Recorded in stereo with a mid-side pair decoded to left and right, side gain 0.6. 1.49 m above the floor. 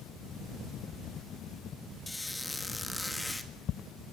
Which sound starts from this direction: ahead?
A squeak, at 2.1 s.